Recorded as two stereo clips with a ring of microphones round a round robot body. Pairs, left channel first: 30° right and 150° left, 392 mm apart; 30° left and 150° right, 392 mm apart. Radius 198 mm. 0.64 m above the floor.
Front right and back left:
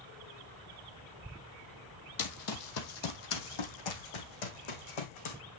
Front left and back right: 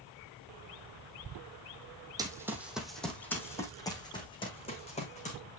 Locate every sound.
2.2 s running footsteps: 70° right, 1.5 m; by 5.4 s 45° right, 3 m